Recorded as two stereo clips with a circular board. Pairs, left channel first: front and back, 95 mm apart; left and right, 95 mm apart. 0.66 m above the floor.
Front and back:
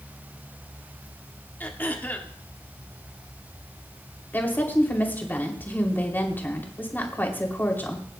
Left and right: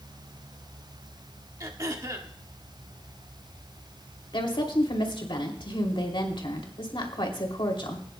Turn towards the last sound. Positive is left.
turn(degrees=70)